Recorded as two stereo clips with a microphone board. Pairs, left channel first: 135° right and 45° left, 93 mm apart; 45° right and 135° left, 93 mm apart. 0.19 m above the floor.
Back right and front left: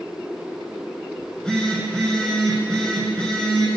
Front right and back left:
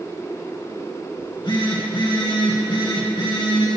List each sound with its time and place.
1.2 s a phone buzzing: 55° right, 2.5 m